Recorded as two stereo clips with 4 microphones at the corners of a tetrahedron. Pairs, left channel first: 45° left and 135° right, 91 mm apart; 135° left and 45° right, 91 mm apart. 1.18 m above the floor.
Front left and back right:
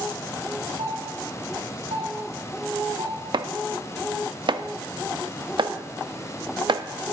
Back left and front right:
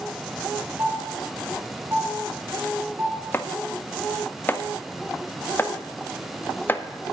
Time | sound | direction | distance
0.8 | a doorbell | 105° right | 2 m
3.3 | chopping | 160° right | 0.5 m